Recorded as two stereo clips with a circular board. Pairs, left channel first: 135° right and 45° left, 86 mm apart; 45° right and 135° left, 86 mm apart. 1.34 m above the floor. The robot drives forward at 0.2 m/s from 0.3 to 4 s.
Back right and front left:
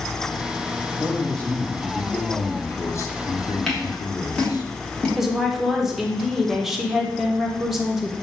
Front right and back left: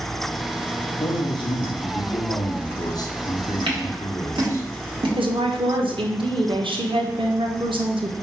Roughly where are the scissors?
Behind left.